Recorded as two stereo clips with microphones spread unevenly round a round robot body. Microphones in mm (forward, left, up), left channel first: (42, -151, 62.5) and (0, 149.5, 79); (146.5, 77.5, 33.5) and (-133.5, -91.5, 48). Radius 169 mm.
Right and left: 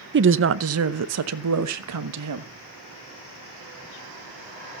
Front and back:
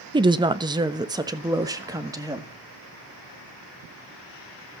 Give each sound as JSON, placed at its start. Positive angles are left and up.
{"t": 0.1, "sound": "a woman speaking", "azimuth_deg": 135, "distance_m": 0.7}